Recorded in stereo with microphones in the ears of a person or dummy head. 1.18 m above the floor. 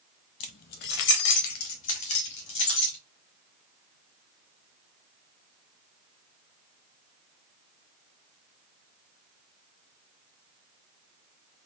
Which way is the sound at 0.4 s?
30° left (ahead or behind).